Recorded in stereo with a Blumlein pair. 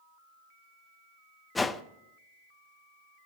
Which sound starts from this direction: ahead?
A whoosh, at 1.6 s.